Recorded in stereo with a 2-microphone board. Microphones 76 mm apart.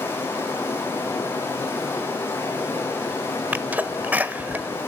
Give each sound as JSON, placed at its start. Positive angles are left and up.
{"t": 0.0, "sound": "running water", "side_deg": 30, "distance_m": 8.0}
{"t": 3.5, "sound": "a sneeze", "side_deg": -20, "distance_m": 1.0}